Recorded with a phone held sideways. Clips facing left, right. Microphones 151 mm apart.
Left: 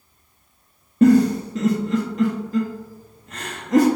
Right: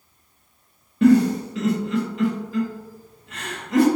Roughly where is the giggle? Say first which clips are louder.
Left 1 dB; left.